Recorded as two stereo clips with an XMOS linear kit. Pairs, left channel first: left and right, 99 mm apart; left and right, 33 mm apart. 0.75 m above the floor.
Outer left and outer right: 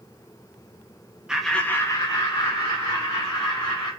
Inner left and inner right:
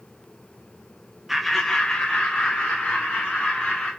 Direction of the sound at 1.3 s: 10° right (ahead or behind).